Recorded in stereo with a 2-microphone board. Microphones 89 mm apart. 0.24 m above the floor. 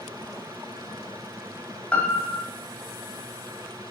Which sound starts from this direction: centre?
A piano, at 1.9 s.